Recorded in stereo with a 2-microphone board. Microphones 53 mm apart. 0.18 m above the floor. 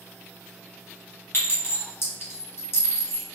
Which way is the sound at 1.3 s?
50° left (ahead or behind).